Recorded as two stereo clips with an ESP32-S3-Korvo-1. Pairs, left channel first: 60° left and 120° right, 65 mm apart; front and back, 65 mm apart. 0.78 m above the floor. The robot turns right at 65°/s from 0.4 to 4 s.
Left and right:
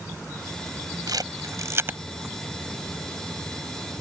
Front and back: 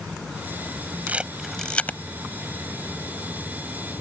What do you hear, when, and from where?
1.1 s a camera shutter: 115° right; by 2.0 s 55° right